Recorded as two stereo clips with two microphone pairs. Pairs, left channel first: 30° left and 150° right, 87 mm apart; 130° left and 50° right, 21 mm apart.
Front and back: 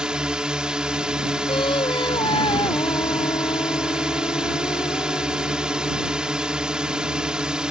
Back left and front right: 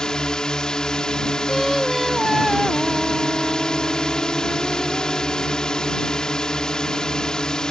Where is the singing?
35° left.